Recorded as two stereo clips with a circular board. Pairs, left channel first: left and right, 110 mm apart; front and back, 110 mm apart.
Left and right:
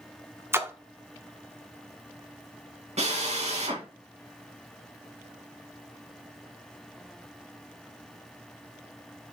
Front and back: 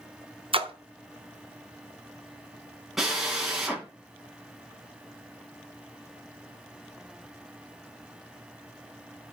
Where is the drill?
90° right, 3 m.